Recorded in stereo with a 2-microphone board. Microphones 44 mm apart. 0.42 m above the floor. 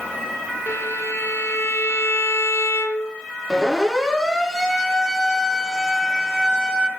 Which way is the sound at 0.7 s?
90° left.